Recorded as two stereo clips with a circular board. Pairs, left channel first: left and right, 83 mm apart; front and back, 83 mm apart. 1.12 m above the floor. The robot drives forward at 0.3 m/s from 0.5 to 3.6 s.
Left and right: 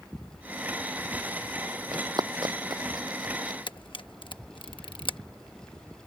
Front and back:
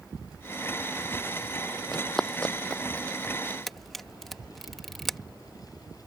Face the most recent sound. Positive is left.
turn(degrees=85)